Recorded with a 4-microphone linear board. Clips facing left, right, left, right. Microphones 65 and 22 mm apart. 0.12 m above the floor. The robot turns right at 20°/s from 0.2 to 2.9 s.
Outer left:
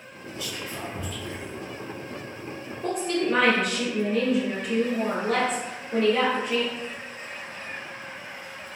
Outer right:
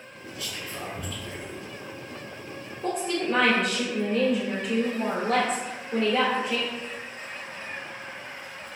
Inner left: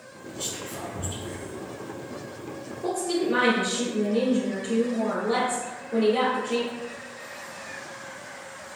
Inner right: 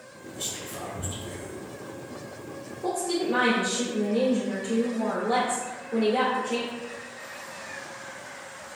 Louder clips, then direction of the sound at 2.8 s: Outer left 2 dB, inner left 1 dB; centre (ahead or behind).